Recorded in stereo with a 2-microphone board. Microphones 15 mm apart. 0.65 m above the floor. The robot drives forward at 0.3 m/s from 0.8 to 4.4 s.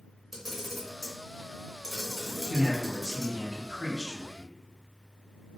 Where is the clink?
I don't hear a clink.